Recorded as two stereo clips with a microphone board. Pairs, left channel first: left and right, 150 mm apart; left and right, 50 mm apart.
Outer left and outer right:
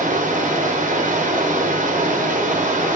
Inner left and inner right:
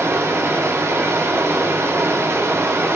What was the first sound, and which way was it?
Running water, 60° right (ahead or behind).